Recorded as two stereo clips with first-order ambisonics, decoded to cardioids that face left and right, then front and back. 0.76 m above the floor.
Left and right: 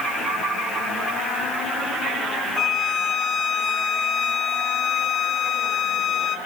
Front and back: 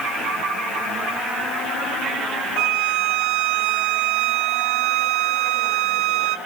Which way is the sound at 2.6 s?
155° left.